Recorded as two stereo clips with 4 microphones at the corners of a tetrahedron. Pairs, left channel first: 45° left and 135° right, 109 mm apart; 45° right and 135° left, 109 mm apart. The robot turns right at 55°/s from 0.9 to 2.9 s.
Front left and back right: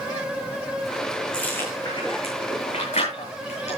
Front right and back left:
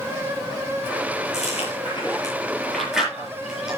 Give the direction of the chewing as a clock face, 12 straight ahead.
1 o'clock.